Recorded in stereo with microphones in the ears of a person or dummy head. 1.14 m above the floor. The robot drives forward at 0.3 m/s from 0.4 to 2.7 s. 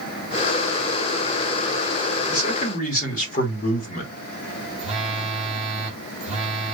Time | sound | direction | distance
2.3 | a man speaking | 40° left (ahead or behind) | 1.6 m
4.8 | a phone buzzing | 40° right (ahead or behind) | 1.1 m